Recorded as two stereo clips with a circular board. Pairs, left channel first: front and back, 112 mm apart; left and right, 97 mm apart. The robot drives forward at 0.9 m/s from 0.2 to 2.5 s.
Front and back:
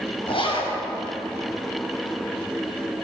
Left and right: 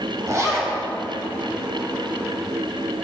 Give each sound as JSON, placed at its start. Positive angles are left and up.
{"t": 0.3, "sound": "a zipper", "azimuth_deg": -30, "distance_m": 6.0}